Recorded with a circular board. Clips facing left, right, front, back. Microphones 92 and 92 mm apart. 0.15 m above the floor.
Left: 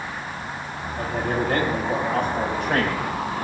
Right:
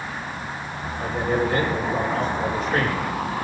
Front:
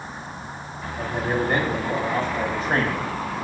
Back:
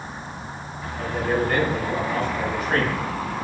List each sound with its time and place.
1.0 s a man speaking: 65° left, 8 m; by 3.4 s 55° left, 7.5 m